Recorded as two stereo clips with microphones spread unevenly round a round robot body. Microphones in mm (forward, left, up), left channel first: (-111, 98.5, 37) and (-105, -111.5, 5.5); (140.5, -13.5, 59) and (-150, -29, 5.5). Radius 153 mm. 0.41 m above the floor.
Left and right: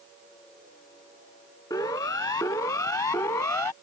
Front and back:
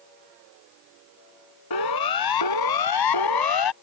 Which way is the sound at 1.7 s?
15° left.